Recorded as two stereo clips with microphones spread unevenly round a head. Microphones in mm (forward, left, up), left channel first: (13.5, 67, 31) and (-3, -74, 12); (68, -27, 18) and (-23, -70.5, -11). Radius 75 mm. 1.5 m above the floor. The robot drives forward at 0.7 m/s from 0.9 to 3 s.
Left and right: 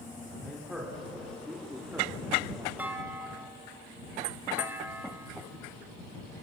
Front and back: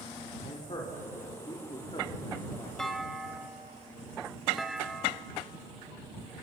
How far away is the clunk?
About 1.4 m.